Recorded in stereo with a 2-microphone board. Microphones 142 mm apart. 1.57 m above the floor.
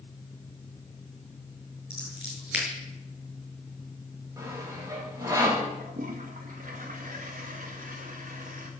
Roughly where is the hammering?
I don't hear hammering.